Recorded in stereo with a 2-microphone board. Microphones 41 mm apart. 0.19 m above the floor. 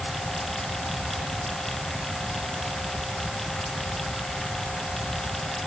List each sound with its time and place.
Only background noise.